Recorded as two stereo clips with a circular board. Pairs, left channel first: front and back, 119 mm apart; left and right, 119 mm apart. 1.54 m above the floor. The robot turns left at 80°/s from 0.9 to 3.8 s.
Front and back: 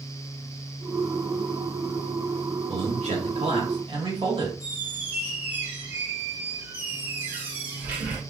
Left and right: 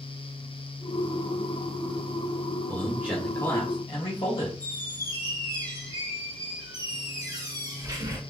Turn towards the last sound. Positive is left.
turn(degrees=-115)